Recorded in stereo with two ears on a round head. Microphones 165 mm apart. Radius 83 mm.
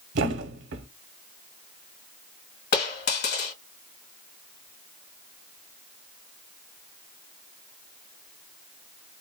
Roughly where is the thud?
Right.